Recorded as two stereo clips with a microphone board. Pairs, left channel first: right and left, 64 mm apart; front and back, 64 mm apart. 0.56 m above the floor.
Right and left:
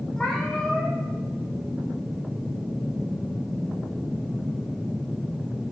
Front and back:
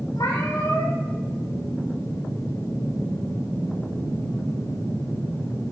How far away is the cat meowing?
About 2.5 m.